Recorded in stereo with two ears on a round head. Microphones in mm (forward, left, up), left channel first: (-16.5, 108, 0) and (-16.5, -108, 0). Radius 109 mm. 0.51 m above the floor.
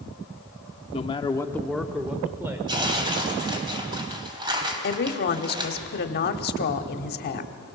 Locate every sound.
0.9 s a man speaking: 25° left (ahead or behind), 0.8 m; by 2.6 s 10° right (ahead or behind), 1.4 m
2.7 s tearing paper: 20° right (ahead or behind), 2.5 m
4.8 s a woman speaking: 40° left (ahead or behind), 1.0 m